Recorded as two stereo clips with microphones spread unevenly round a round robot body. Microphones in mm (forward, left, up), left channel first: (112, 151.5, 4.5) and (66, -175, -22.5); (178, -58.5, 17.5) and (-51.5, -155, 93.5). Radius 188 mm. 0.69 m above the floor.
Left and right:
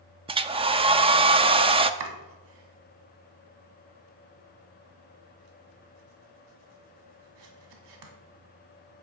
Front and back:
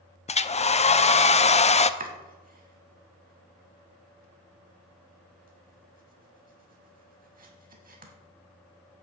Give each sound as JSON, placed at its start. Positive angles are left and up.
{"t": 0.3, "sound": "a hair dryer", "azimuth_deg": -30, "distance_m": 0.6}
{"t": 2.0, "sound": "chopping", "azimuth_deg": -105, "distance_m": 1.7}